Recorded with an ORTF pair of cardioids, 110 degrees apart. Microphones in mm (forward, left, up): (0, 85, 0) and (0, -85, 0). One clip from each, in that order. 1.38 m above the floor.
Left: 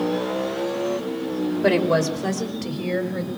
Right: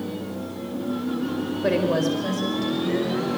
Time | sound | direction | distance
1.6 | a woman speaking | 40° left | 5 m